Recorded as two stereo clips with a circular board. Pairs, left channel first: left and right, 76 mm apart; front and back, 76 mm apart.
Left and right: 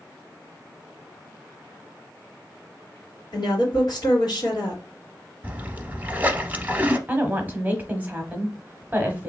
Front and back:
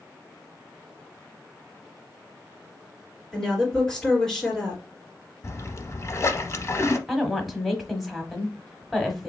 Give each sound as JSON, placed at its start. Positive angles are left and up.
{"t": 3.3, "sound": "a woman speaking", "azimuth_deg": 80, "distance_m": 2.5}
{"t": 5.4, "sound": "a splash", "azimuth_deg": -30, "distance_m": 0.6}
{"t": 7.1, "sound": "a woman speaking", "azimuth_deg": -90, "distance_m": 1.0}